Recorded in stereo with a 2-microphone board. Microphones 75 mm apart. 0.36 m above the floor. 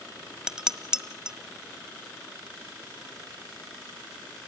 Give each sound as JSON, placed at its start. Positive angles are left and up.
{"t": 0.5, "sound": "dishes clattering", "side_deg": -10, "distance_m": 1.4}